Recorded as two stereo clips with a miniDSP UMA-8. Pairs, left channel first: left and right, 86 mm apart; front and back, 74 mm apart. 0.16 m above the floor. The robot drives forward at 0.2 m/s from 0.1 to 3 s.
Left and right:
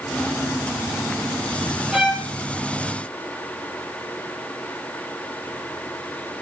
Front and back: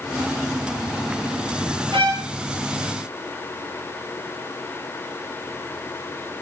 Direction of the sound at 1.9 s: Straight behind.